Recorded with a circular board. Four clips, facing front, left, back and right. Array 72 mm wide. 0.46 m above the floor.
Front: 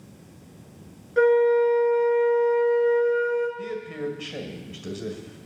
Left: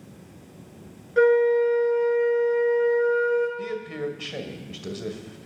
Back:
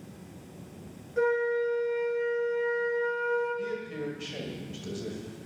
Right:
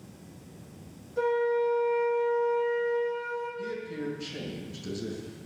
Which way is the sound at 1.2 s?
60° left.